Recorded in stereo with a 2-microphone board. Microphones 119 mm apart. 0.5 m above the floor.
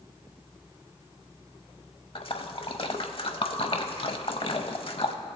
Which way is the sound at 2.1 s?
50° left (ahead or behind).